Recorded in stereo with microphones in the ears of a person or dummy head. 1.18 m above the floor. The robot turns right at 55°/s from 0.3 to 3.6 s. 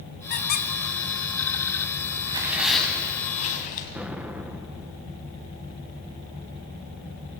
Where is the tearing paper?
25° right, 4 m; by 3.9 s 50° left, 4 m.